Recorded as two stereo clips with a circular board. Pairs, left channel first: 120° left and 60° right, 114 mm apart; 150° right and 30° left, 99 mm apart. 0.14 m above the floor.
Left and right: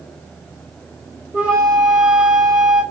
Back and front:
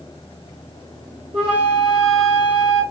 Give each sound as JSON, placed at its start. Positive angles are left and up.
{"t": 1.3, "sound": "a flute", "azimuth_deg": 15, "distance_m": 1.5}